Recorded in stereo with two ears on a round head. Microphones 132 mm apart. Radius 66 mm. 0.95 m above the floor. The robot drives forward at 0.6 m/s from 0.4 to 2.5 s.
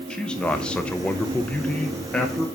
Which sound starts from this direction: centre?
A man speaking, at 0.1 s.